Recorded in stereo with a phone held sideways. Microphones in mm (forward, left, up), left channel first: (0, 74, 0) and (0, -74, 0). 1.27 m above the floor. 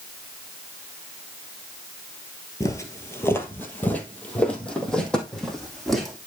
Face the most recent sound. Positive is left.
turn(degrees=0)  # may be behind; listen again after turning